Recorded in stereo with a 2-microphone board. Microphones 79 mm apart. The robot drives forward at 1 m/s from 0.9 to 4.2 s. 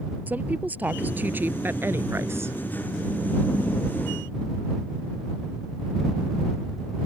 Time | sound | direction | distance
0.3 | a woman speaking | 20° right (ahead or behind) | ?